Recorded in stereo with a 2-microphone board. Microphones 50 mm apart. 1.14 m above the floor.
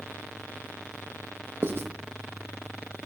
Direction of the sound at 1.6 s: 45° right (ahead or behind).